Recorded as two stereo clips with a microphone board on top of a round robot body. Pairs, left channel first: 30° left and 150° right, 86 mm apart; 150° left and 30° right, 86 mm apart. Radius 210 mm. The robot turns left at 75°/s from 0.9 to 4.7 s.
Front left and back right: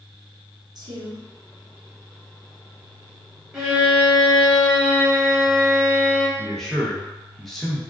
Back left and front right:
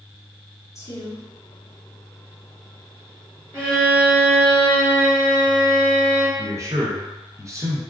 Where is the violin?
65° right, 1.8 m; by 6.3 s 155° right, 1.8 m.